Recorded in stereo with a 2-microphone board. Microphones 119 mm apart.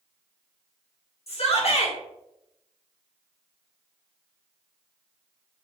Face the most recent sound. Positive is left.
turn(degrees=55)  # may be behind; listen again after turning